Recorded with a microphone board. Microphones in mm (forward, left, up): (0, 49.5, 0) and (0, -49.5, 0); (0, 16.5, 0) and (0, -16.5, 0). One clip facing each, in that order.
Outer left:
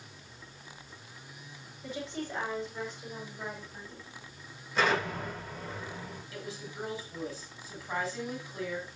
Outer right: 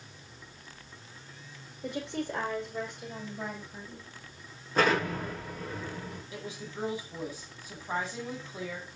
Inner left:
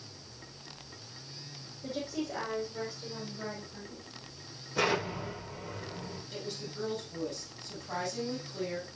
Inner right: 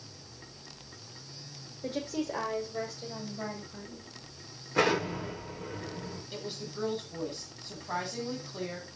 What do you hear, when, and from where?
1.8 s a woman speaking: 65° right (ahead or behind), 6.5 m; by 4.1 s 55° right (ahead or behind), 9.5 m
4.8 s an explosion: 45° right (ahead or behind), 8 m
6.3 s a woman speaking: 20° right (ahead or behind), 6.5 m